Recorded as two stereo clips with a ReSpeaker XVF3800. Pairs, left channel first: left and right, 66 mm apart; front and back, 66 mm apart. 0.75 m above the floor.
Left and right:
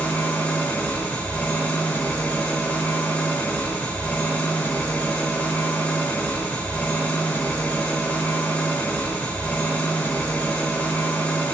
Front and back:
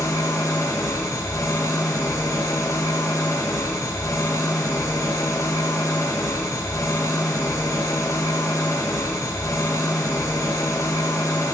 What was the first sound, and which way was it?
An engine running, 25° left.